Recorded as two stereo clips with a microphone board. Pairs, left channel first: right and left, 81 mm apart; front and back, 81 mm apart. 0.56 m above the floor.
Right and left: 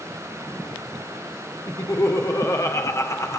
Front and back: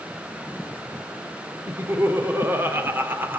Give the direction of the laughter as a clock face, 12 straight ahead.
4 o'clock.